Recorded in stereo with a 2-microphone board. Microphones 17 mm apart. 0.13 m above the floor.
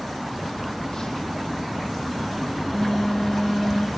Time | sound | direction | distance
0.6 | a phone buzzing | 45° left (ahead or behind) | 0.8 m